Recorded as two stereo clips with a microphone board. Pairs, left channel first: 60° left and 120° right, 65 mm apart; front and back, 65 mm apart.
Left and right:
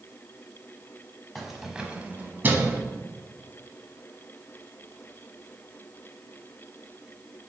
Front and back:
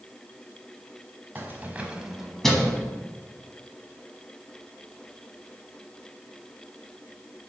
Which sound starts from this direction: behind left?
Keys jangling, at 1.4 s.